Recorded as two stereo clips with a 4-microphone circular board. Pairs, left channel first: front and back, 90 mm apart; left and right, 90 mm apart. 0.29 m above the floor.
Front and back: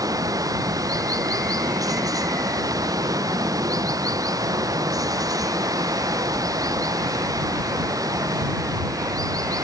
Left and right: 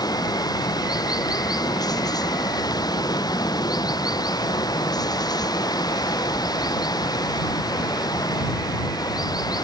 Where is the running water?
130° left.